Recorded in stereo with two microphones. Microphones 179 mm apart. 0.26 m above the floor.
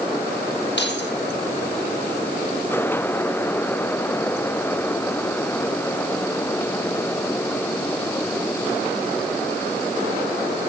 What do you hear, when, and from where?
0.8 s keys jangling: 85° left, 6 m